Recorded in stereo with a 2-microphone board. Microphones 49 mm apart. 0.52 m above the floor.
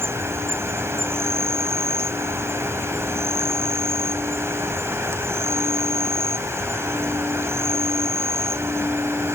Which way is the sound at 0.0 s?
70° right (ahead or behind).